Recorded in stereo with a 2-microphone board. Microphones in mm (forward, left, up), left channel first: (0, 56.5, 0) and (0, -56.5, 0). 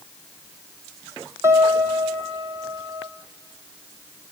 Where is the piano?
25° right (ahead or behind), 2.5 m.